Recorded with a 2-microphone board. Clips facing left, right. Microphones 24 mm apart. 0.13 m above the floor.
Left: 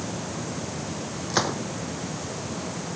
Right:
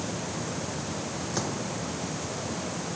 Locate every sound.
1.3 s a gunshot: 50° left (ahead or behind)